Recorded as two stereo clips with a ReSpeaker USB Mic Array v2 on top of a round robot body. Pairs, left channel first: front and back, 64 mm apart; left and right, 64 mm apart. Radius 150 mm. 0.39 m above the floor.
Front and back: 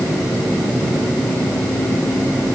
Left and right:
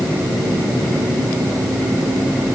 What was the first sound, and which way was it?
Only background noise.